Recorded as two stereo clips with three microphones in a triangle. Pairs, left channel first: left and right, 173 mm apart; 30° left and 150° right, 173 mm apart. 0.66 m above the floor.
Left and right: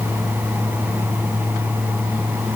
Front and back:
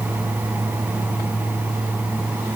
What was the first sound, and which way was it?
Only background noise.